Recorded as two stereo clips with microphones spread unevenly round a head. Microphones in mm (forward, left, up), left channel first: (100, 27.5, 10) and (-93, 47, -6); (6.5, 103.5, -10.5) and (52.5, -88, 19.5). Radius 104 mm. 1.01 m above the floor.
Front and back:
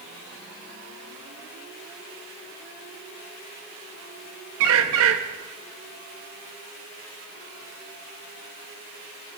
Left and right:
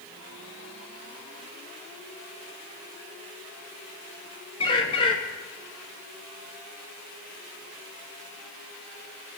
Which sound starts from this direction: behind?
A bird, at 4.6 s.